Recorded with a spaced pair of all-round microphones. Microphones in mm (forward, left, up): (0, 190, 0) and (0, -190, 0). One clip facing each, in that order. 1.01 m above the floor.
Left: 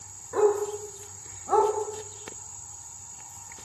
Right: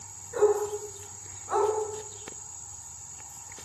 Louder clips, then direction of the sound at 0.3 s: Left 1 dB; 70° left (ahead or behind).